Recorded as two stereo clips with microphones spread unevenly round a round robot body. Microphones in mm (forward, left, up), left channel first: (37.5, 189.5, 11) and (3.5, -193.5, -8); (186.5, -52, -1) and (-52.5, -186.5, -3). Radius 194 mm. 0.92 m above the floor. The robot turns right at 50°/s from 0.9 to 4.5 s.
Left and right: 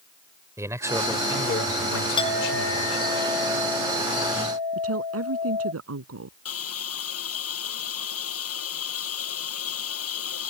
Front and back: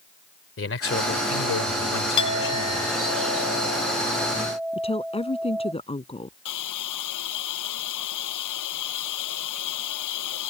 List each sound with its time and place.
0.6 s a man speaking: 10° right; by 3.0 s 95° left
2.2 s a clink: 5° left; by 5.7 s 125° left
4.7 s a woman speaking: 40° right
6.5 s a hiss: 30° left